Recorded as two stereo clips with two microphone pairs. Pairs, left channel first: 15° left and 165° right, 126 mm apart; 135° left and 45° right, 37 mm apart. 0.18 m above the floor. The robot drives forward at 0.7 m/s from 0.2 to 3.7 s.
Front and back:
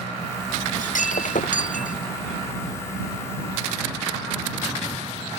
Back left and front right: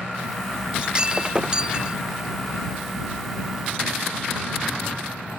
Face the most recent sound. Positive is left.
turn(degrees=25)